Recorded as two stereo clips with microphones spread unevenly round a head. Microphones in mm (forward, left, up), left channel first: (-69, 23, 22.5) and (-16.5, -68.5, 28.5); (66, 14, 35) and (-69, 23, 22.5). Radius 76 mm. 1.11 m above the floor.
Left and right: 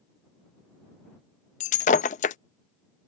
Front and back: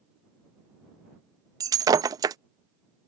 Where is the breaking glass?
110° left.